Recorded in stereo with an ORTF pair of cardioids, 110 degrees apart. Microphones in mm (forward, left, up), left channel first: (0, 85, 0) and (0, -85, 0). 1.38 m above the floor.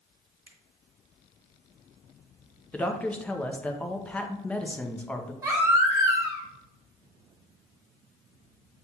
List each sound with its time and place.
0.5 s a finger snap: 10° right, 1.7 m
2.7 s a woman speaking: 10° left, 0.6 m
5.4 s a baby crying: 15° right, 1.0 m